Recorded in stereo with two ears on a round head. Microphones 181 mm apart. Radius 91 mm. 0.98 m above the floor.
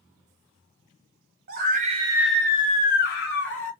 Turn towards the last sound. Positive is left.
turn(degrees=65)  # may be behind; listen again after turning